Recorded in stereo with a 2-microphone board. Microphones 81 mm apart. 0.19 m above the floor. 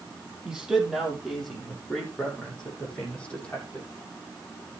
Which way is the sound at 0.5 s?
10° right (ahead or behind).